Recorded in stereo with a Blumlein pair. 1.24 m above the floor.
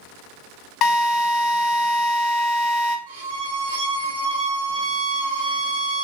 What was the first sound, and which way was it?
A drill, 30° left.